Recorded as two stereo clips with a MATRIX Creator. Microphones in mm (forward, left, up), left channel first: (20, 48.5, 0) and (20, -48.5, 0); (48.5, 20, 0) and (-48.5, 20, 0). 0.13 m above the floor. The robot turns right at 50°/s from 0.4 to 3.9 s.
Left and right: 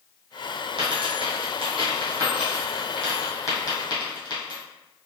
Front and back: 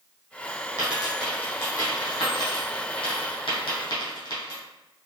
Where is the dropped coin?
110° right, 1.9 m; by 4.6 s 50° left, 1.9 m.